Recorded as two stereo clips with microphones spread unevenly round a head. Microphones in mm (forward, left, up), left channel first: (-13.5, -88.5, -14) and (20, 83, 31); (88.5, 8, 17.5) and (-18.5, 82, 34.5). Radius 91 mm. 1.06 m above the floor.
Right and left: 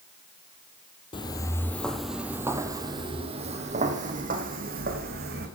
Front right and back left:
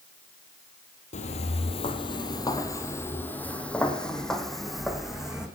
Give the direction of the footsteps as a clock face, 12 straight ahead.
1 o'clock.